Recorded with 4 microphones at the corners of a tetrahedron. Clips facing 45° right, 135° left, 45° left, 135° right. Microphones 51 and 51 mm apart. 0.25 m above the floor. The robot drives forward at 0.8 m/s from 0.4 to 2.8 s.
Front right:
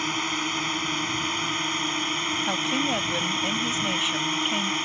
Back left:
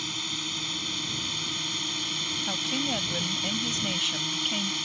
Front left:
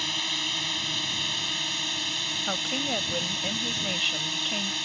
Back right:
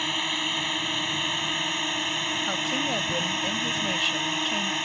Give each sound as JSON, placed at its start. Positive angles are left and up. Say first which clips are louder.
{"t": 0.0, "sound": "a drone", "louder": "front right 8 dB, back right 3 dB", "azimuth_deg": -75}
{"t": 2.5, "sound": "a woman speaking", "louder": "front right 4 dB, even", "azimuth_deg": -30}